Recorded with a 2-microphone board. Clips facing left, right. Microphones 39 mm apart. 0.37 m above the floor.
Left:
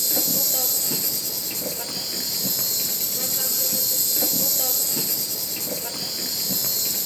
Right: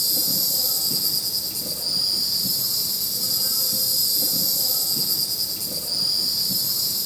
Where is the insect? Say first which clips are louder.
Even; 60° left (ahead or behind), 1.5 m.